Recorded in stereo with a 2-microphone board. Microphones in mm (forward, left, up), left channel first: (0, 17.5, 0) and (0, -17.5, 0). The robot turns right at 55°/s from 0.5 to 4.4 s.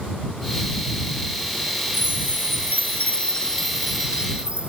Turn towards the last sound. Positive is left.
turn(degrees=-150)